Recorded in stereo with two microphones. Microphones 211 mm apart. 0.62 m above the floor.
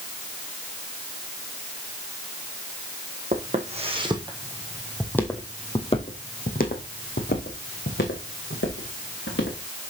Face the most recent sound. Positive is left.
turn(degrees=70)  # may be behind; listen again after turning